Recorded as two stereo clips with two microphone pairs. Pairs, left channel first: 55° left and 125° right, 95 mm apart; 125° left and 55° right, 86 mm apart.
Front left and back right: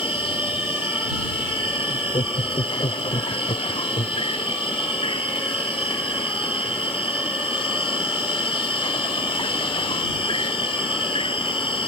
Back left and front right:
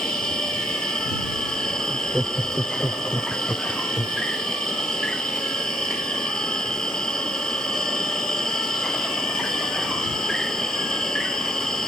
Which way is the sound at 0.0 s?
45° left.